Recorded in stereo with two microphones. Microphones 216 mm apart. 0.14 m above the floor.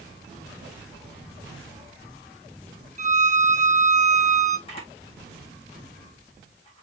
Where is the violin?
35° right (ahead or behind), 0.6 m.